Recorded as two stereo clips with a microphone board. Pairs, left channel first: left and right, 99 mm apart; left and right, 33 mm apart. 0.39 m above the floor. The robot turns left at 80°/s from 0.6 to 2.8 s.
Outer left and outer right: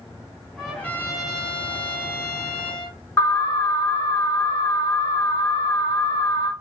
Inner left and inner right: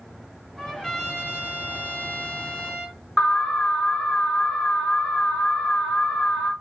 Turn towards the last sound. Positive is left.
turn(degrees=30)  # may be behind; listen again after turning